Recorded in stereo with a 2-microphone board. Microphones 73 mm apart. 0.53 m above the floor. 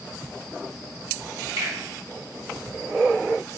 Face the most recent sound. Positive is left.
turn(degrees=-50)  # may be behind; listen again after turning